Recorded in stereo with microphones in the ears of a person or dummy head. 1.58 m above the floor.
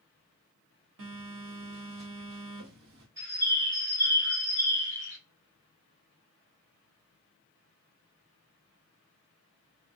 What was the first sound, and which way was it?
A phone buzzing, 65° right (ahead or behind).